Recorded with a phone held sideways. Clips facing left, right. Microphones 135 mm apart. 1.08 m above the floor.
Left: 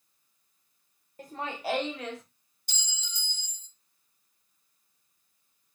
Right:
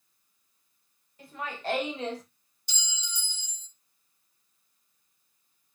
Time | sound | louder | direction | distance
1.2 | laughter | left 1 dB | 45° left (ahead or behind) | 0.7 m
2.7 | a clink | right 3 dB | 50° left (ahead or behind) | 0.6 m